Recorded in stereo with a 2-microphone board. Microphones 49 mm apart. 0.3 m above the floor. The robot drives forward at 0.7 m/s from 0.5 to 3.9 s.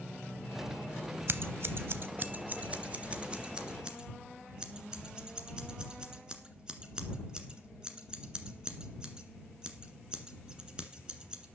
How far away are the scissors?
About 0.7 m.